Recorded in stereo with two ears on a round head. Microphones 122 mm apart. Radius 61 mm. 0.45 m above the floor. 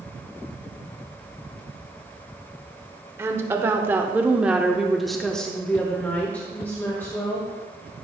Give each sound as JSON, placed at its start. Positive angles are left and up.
{"t": 3.2, "sound": "a woman speaking", "side_deg": -20, "distance_m": 1.3}